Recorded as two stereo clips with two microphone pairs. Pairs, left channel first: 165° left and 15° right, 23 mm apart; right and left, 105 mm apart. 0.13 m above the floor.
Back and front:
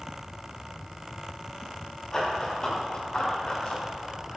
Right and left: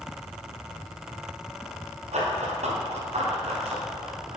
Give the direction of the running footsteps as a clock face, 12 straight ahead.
9 o'clock.